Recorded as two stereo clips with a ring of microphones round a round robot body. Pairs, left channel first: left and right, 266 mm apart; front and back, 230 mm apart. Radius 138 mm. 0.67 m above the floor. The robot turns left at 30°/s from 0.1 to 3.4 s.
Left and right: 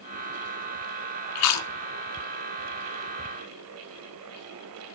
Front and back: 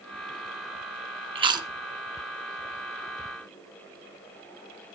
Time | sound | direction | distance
1.4 | chewing | 115° left | 1.5 m